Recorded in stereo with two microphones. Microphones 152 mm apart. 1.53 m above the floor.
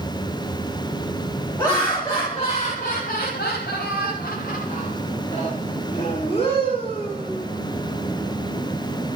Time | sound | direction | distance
1.6 | laughter | 15° left (ahead or behind) | 1.1 m